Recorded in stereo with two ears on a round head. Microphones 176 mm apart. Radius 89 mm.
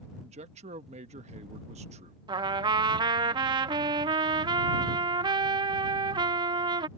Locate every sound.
0.2 s a man speaking: 35° right (ahead or behind)
2.3 s a trumpet: 25° right (ahead or behind)